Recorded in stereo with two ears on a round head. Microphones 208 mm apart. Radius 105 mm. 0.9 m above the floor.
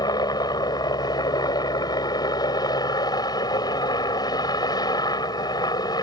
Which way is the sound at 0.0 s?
20° left (ahead or behind).